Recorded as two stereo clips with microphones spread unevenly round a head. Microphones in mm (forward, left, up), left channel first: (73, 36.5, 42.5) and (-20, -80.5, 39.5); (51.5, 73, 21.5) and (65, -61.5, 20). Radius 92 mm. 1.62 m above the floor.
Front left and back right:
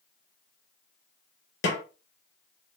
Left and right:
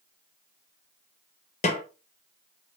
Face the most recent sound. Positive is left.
turn(degrees=55)